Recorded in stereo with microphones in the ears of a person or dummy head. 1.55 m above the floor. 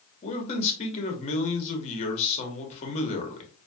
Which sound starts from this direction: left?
A man speaking, at 0.2 s.